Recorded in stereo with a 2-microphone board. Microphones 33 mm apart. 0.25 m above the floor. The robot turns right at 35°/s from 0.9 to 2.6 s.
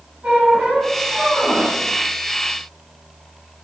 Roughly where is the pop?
I don't hear a pop.